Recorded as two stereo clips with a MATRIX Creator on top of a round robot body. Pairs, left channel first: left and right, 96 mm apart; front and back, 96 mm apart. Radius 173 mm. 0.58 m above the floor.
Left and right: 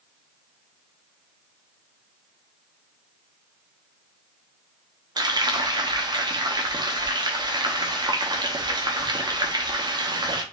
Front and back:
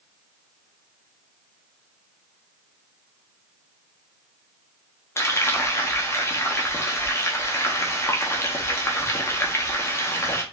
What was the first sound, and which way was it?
Frying, 55° right.